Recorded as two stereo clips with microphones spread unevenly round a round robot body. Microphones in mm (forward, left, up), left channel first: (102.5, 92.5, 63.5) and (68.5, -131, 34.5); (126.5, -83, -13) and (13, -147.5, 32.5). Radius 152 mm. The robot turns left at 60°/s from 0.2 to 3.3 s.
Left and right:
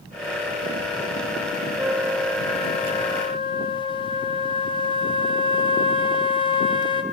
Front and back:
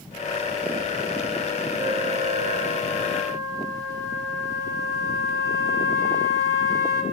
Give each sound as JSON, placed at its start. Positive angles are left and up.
{"t": 1.8, "sound": "a flute", "azimuth_deg": -135, "distance_m": 1.1}